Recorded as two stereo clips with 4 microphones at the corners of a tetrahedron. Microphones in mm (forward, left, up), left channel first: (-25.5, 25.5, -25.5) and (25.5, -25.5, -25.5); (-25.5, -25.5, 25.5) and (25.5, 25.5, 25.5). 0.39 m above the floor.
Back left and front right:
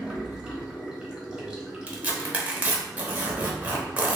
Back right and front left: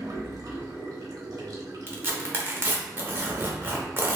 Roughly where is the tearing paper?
Ahead.